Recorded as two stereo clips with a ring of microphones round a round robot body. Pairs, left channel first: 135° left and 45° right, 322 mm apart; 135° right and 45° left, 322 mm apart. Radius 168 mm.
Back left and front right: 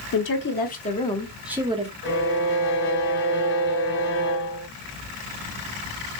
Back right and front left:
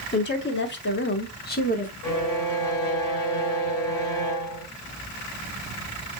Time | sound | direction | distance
0.1 | a woman speaking | 175° left | 1.3 m
2.0 | a violin | 170° right | 1.2 m